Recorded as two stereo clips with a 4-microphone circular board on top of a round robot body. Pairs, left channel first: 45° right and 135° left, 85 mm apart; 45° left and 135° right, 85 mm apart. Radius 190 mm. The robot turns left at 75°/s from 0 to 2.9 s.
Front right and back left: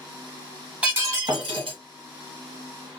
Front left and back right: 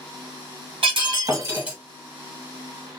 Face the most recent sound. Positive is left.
turn(degrees=55)